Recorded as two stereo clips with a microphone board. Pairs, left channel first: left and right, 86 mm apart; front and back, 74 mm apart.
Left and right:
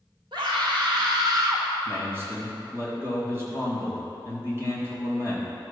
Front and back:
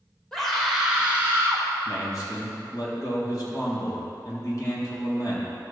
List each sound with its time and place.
0.3 s a scream: 85° right, 2.5 m; by 1.7 s 130° right, 2.0 m
1.9 s a man speaking: 30° right, 3 m